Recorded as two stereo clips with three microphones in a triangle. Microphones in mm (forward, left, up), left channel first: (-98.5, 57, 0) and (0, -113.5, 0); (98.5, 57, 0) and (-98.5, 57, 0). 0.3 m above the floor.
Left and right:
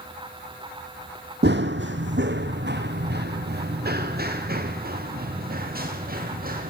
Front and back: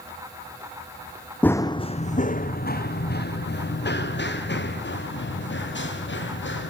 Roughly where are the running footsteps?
Right.